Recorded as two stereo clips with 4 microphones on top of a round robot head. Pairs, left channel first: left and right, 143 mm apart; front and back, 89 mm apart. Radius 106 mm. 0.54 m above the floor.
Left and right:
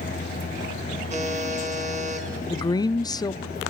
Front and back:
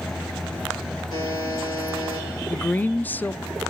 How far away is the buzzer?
About 5 m.